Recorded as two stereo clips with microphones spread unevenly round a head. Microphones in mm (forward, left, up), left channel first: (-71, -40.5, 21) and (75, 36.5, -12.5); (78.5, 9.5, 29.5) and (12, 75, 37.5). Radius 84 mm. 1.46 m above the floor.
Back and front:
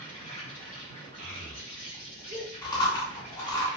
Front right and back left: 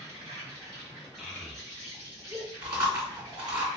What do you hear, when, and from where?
0.0 s an insect: 165° right, 1.5 m
1.2 s a child speaking: 60° left, 0.8 m
2.6 s chewing: 170° left, 1.7 m